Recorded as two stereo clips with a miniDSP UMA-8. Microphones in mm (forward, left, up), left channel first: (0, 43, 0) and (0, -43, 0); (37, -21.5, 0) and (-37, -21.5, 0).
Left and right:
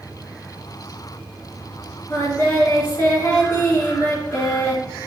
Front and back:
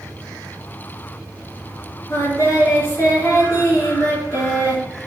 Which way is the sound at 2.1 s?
30° left.